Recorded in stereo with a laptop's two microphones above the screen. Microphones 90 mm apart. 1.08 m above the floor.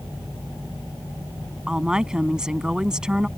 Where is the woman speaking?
10° right (ahead or behind).